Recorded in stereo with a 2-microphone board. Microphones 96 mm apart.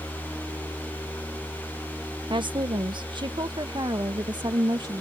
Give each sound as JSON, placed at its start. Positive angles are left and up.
{"t": 2.3, "sound": "a woman speaking", "side_deg": -55}